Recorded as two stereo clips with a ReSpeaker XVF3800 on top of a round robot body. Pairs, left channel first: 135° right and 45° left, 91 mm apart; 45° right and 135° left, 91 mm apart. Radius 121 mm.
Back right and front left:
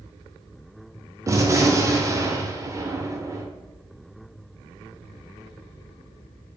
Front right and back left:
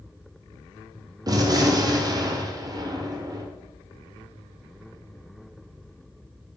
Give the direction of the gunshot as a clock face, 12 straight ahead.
9 o'clock.